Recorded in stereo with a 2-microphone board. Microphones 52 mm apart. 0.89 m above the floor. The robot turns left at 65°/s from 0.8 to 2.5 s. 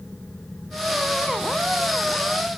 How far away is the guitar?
No guitar in this recording.